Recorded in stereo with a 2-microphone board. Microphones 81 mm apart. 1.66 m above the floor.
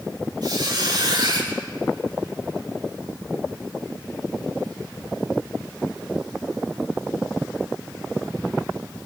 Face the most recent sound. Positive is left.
turn(degrees=-65)  # may be behind; listen again after turning